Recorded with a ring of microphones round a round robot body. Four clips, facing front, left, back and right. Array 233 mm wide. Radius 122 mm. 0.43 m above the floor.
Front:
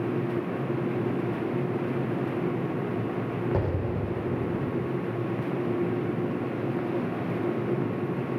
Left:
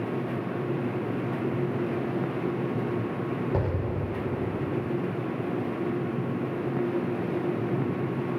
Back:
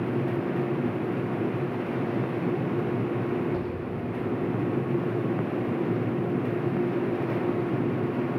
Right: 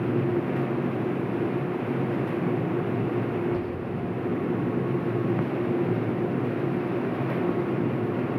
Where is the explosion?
45° left.